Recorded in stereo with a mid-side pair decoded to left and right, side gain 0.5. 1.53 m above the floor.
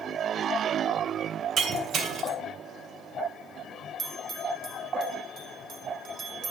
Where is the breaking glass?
70° right, 3 m.